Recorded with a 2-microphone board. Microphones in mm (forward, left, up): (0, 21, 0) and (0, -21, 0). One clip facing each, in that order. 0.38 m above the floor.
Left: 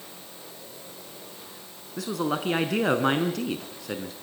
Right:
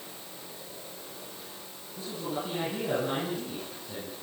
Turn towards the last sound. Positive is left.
turn(degrees=75)  # may be behind; listen again after turning